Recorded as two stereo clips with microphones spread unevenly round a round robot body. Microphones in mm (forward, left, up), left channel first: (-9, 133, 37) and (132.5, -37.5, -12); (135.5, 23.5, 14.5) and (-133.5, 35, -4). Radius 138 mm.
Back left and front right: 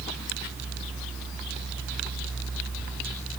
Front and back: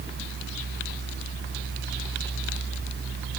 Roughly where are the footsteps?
No footsteps in this recording.